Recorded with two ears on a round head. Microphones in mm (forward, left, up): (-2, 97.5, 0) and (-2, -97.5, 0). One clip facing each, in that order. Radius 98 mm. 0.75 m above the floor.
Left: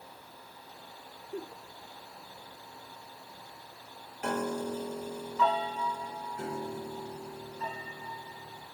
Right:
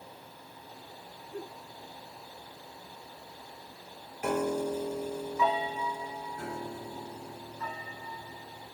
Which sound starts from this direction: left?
A giggle, at 1.3 s.